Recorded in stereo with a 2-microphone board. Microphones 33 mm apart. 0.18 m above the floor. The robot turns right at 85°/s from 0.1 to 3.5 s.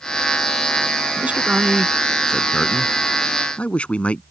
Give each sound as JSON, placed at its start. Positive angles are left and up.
{"t": 1.2, "sound": "a man speaking", "side_deg": -45}